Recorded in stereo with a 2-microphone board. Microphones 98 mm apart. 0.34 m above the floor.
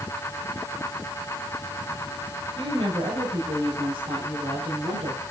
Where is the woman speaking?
60° right (ahead or behind), 7 m; by 5.2 s 75° right (ahead or behind), 7 m.